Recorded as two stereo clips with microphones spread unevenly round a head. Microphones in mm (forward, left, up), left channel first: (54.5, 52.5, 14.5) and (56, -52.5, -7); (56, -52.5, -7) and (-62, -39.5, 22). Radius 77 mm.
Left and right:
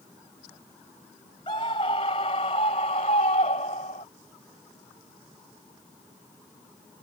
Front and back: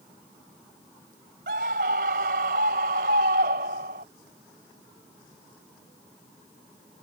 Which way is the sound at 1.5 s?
150° left.